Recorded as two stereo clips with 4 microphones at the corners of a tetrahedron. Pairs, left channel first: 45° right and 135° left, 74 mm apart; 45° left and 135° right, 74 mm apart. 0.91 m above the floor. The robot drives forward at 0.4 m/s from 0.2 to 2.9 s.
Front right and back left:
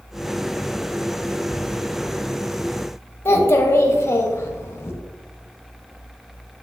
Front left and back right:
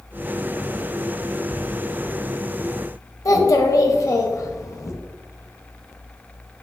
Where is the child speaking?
10° left, 0.5 m.